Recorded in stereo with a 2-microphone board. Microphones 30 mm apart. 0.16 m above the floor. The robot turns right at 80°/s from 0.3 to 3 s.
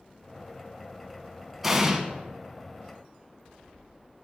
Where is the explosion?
5° right (ahead or behind), 1.0 m; by 2.0 s 15° right (ahead or behind), 1.0 m.